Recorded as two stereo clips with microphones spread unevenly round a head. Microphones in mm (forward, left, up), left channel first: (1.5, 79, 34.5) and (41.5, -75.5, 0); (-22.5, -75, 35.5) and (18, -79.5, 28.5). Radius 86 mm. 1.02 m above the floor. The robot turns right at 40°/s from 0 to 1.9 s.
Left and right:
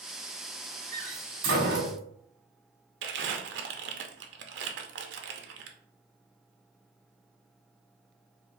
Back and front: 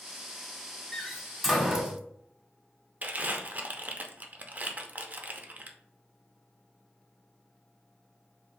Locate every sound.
0.9 s a door slam: 120° right, 1.2 m; by 2.0 s 80° right, 1.2 m
3.0 s crumpling: 60° right, 0.6 m